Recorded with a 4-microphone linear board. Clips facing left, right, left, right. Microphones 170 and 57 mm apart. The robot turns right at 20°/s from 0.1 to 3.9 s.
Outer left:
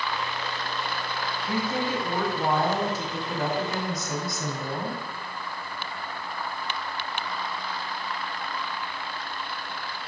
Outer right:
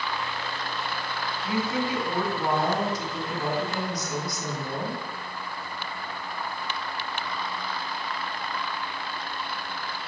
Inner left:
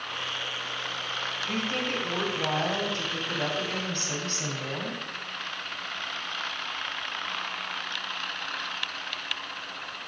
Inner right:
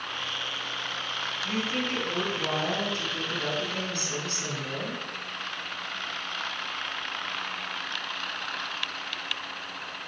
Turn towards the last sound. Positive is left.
turn(degrees=95)